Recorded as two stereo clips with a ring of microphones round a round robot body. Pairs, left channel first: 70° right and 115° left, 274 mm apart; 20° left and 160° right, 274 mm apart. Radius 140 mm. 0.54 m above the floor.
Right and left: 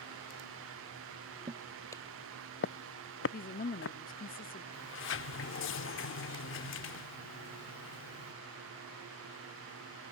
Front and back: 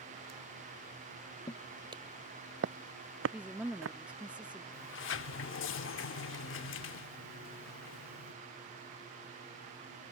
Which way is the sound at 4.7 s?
20° right.